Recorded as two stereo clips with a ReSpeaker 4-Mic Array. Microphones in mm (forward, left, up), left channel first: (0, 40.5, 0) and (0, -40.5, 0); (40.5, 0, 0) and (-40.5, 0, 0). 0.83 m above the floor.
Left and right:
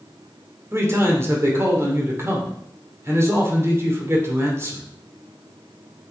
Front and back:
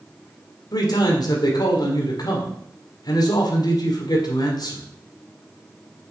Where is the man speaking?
30° right, 2.5 m.